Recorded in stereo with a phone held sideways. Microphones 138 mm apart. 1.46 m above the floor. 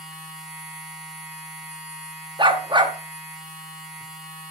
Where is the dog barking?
35° right (ahead or behind), 1.0 m.